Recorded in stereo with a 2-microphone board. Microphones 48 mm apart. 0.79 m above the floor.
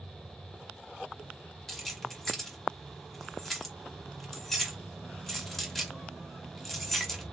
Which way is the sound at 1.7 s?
5° left (ahead or behind).